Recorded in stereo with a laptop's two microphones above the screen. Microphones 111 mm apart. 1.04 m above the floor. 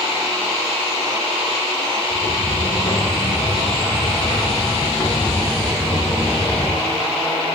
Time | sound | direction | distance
2.1 | footsteps | 65° left (ahead or behind) | 2.5 m